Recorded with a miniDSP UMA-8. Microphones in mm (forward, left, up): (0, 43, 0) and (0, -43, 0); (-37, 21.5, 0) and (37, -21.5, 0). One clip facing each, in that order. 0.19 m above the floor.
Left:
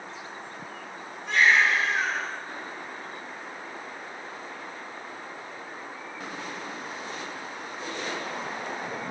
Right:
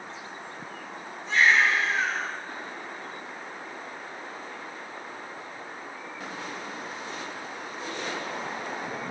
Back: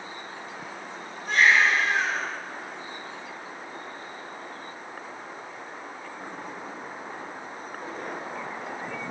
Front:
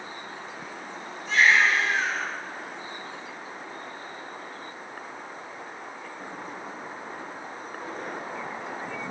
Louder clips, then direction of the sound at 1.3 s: Even, even; 115° left.